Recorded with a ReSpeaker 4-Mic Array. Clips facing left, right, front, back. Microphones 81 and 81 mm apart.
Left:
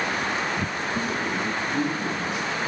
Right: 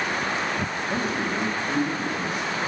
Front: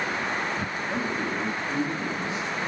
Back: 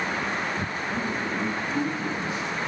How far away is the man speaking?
About 1.2 m.